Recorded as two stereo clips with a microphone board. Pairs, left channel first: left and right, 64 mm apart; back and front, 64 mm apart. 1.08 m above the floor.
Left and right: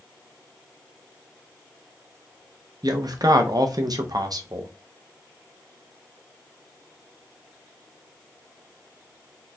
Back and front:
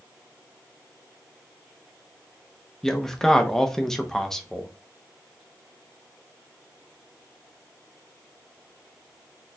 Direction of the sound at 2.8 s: 95° right.